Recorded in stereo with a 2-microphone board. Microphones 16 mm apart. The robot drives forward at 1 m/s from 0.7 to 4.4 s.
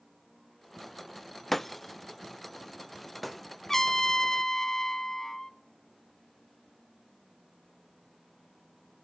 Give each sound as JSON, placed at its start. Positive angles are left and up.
{"t": 1.5, "sound": "breaking glass", "side_deg": 15, "distance_m": 0.5}
{"t": 3.7, "sound": "a trumpet", "side_deg": 20, "distance_m": 1.0}